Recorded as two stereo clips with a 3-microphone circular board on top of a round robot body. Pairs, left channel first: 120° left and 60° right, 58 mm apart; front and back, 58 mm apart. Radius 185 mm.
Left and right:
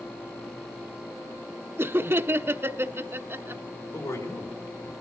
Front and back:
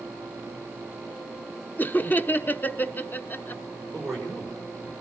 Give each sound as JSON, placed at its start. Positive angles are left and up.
{"t": 1.8, "sound": "laughter", "azimuth_deg": -40, "distance_m": 1.0}
{"t": 3.9, "sound": "a man speaking", "azimuth_deg": 90, "distance_m": 4.0}